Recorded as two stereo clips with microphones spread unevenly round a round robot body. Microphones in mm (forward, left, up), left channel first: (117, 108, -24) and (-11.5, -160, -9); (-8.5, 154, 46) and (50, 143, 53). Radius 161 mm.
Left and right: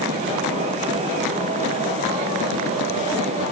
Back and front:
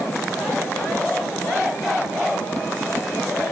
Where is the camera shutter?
No camera shutter in this recording.